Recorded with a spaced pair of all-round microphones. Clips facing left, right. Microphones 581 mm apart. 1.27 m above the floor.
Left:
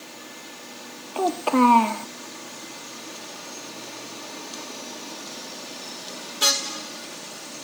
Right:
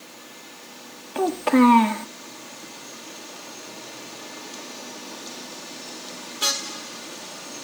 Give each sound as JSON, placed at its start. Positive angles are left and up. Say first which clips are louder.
{"t": 1.1, "sound": "a child speaking", "louder": "right 3 dB", "side_deg": -50, "distance_m": 0.6}